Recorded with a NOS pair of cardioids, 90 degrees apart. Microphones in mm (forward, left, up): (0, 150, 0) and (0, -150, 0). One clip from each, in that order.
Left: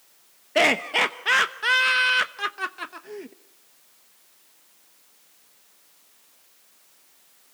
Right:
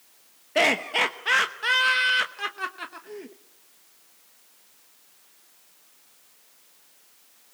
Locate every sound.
0.6 s laughter: 15° left, 0.9 m